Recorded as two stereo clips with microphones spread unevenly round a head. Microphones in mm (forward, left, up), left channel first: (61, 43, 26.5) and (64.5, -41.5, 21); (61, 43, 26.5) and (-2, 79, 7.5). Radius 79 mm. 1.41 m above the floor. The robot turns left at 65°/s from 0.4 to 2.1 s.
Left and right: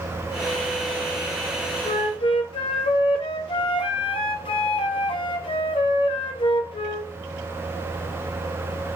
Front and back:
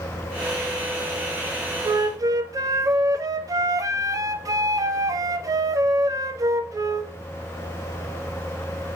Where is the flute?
125° left, 1.2 m; by 7.1 s 110° left, 1.2 m.